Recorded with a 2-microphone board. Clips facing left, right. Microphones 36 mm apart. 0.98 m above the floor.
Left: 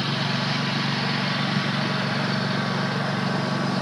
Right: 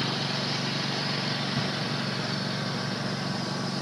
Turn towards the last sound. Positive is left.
turn(degrees=25)  # may be behind; listen again after turning